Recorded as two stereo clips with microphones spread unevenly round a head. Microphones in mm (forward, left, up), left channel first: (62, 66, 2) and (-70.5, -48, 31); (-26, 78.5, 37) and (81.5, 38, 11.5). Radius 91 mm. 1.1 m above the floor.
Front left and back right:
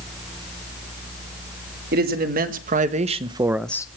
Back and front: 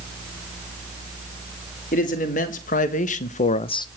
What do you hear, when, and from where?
1.9 s a man speaking: 175° right, 2 m; by 3.9 s 100° left, 0.7 m